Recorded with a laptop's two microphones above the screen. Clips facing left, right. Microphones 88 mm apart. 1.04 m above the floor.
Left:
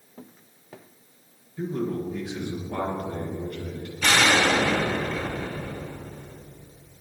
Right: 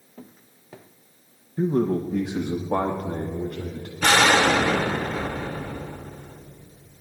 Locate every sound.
1.6 s a man speaking: 50° right (ahead or behind), 0.9 m; by 3.9 s 75° right (ahead or behind), 2.0 m
4.0 s an explosion: 45° right (ahead or behind), 2.5 m